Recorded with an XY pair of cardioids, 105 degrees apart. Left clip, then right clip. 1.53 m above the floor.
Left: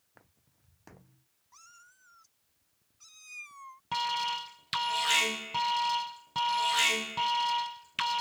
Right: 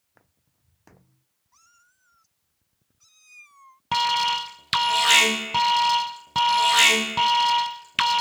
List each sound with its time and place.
0.1 s footsteps: straight ahead
1.5 s a cat meowing: 25° left
3.9 s an alarm: 65° right